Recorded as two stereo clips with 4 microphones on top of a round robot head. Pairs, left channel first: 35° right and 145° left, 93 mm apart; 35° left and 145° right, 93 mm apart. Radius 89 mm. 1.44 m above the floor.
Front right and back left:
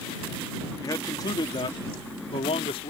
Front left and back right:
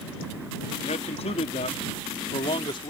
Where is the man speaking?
25° left; by 2.9 s 10° right.